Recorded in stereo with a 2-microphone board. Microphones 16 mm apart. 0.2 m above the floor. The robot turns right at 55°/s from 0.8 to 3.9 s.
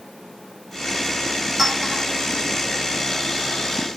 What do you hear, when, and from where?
1.6 s a clink: 10° right (ahead or behind), 5 m; by 2.0 s 30° right (ahead or behind), 5 m